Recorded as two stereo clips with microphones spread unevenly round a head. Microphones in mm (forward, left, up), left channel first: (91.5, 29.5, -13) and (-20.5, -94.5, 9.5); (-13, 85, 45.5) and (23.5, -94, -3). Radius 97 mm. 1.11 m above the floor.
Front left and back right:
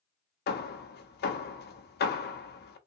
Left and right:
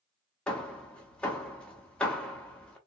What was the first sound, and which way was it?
Hammering, 25° left.